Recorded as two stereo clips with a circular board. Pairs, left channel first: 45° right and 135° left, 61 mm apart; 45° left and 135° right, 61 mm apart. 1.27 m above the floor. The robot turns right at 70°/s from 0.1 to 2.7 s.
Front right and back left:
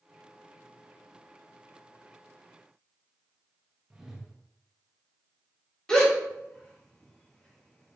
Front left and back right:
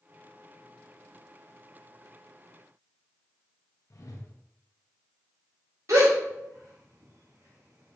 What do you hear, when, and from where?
3.9 s a whoosh: 55° left, 0.7 m
5.9 s a gasp: 120° right, 1.3 m